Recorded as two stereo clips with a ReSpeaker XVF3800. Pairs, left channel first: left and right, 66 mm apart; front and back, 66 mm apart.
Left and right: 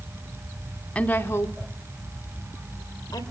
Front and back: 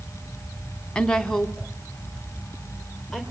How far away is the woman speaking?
About 1.2 m.